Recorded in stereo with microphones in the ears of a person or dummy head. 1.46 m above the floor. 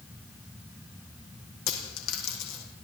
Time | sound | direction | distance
1.7 | a dropped coin | 75° left (ahead or behind) | 6 m